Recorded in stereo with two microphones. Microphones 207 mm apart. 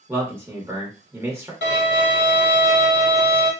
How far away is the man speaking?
About 0.8 m.